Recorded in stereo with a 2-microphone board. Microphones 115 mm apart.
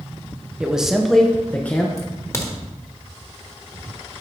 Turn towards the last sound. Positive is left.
turn(degrees=25)  # may be behind; listen again after turning